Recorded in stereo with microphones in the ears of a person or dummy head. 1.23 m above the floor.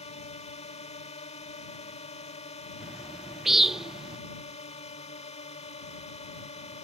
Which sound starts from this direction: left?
A drone, at 0.0 s.